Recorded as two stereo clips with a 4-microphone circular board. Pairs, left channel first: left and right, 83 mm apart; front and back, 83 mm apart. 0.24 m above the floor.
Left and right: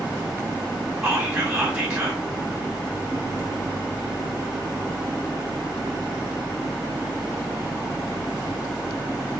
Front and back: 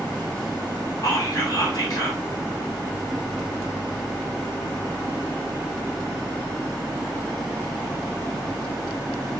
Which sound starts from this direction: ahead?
Whispering, at 1.0 s.